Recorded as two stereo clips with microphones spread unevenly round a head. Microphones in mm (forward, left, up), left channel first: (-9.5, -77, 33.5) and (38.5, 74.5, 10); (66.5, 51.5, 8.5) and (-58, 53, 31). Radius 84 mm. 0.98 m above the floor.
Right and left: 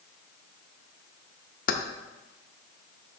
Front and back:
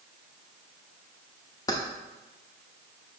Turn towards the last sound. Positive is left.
turn(degrees=-70)